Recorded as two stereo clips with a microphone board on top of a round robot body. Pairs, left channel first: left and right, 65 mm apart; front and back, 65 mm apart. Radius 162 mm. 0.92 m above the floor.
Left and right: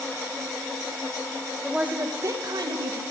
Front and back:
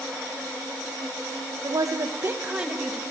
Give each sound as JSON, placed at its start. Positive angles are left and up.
{"t": 1.6, "sound": "a woman speaking", "azimuth_deg": -175, "distance_m": 1.0}